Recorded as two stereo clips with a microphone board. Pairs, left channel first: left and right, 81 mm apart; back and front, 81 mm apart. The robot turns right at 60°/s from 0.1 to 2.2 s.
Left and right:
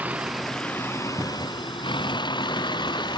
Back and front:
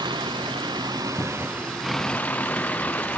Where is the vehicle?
20° right; by 3.2 s 110° left.